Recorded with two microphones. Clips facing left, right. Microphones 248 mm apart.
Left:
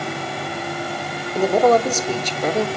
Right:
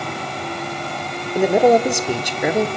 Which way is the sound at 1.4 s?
10° right (ahead or behind).